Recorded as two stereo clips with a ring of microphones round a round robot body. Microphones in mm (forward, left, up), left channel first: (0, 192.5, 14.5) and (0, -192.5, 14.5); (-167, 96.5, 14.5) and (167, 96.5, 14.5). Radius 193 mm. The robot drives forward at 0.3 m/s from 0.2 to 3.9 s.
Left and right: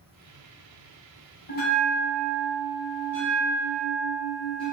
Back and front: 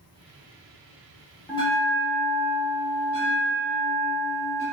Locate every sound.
1.5 s a bell: 115° left, 0.6 m; by 4.6 s 165° left, 1.1 m